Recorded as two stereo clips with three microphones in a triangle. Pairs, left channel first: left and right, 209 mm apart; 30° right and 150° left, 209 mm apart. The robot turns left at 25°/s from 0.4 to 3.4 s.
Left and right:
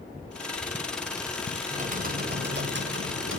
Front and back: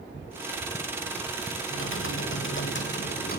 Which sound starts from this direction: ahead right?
Typing on a keyboard, at 1.7 s.